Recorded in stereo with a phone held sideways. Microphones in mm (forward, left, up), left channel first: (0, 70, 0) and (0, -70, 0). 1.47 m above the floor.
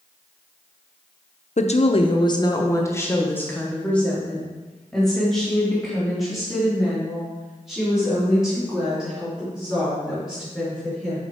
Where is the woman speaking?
60° left (ahead or behind), 0.5 m; by 11.2 s 5° right (ahead or behind), 5 m.